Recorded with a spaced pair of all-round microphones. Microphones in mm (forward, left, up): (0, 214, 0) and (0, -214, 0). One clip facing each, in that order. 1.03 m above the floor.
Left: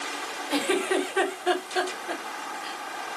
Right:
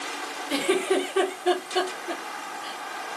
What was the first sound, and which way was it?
A giggle, 50° right (ahead or behind).